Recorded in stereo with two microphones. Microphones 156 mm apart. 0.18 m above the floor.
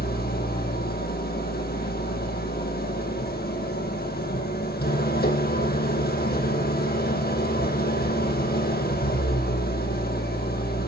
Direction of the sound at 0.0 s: 75° left (ahead or behind).